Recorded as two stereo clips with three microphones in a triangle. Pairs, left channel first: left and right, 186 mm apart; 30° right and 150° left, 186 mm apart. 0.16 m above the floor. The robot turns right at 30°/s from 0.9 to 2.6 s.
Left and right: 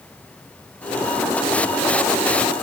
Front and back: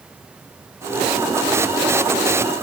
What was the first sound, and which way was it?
Only background noise.